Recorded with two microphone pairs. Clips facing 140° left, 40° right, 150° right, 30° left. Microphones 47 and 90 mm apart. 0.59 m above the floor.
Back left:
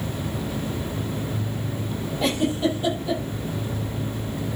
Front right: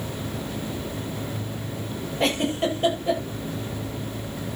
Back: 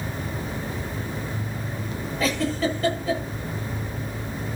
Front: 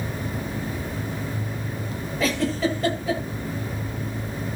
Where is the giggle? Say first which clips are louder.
Back left 1 dB, front 1 dB; 60° right, 9 m.